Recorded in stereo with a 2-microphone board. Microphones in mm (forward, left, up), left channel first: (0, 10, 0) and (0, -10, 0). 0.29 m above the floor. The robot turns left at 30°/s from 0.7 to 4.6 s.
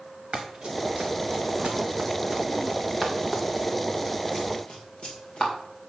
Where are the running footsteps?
55° right (ahead or behind), 1.9 m; by 5.5 s 60° left (ahead or behind), 3.5 m.